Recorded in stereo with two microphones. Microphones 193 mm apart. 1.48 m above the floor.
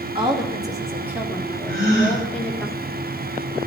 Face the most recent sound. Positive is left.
turn(degrees=-50)  # may be behind; listen again after turning